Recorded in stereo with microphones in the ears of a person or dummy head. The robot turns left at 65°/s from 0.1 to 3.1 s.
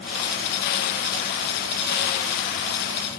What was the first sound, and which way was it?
Only background noise.